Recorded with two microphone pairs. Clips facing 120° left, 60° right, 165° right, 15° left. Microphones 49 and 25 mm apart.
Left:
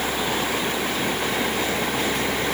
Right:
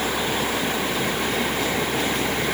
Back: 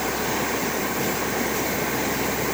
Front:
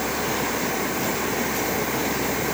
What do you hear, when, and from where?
Only background noise.